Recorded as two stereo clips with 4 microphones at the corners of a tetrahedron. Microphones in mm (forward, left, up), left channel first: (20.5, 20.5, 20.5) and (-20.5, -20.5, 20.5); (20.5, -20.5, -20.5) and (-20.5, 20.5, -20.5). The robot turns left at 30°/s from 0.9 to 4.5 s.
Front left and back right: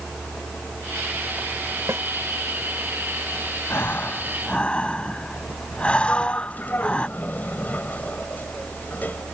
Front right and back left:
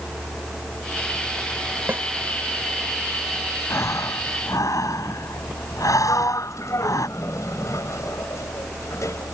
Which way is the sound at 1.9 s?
170° right.